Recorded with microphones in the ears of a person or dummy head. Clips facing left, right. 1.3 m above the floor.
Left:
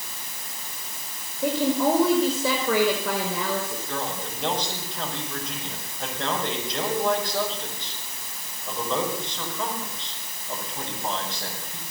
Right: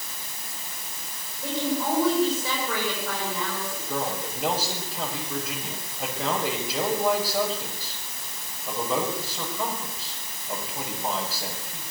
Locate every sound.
1.4 s a woman speaking: 60° left (ahead or behind), 5 m
3.9 s a man speaking: centre (ahead or behind), 6 m